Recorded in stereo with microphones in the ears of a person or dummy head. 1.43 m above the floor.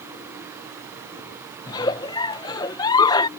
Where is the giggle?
25° left (ahead or behind).